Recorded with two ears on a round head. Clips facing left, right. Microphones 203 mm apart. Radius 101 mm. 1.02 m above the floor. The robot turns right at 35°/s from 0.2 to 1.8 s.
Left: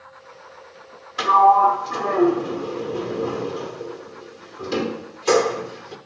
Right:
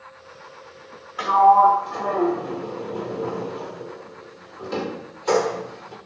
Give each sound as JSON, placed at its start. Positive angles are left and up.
{"t": 1.2, "sound": "a sliding door", "side_deg": 55, "distance_m": 1.1}